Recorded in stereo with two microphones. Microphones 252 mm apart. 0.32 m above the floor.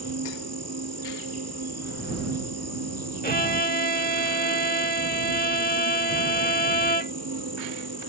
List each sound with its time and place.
0.0 s an insect: 80° right
3.2 s a violin: 35° left (ahead or behind)